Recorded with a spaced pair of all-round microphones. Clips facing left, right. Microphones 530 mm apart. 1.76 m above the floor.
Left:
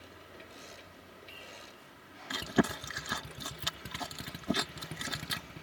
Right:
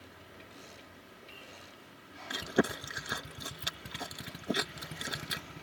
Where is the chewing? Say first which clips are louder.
Even; 20° left (ahead or behind).